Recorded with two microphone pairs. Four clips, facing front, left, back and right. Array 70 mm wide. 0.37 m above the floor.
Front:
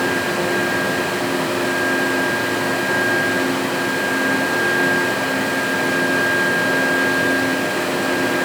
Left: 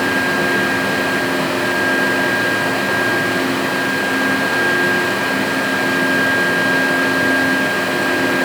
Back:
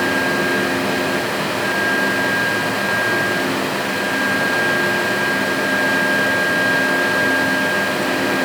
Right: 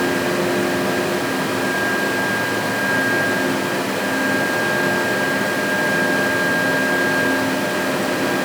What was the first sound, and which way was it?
Only background noise.